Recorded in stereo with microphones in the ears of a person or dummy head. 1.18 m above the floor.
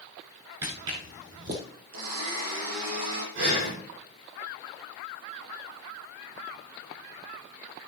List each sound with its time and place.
0.6 s footsteps: 15° right (ahead or behind), 1.1 m; by 1.6 s 25° right (ahead or behind), 1.3 m
1.9 s a blender: 80° right, 5 m
3.4 s breathing: 60° right (ahead or behind), 4.5 m